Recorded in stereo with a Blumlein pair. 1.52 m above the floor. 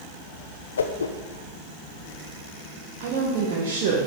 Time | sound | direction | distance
0.8 | a whoosh | 70° left | 0.6 m
3.0 | a woman speaking | 45° right | 1.7 m